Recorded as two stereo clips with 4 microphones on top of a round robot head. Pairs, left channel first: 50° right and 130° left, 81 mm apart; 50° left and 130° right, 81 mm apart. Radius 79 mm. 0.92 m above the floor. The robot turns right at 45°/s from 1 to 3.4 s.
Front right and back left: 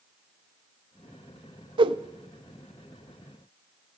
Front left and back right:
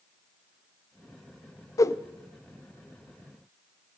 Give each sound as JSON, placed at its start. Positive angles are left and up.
{"t": 1.8, "sound": "a whoosh", "azimuth_deg": 100, "distance_m": 0.5}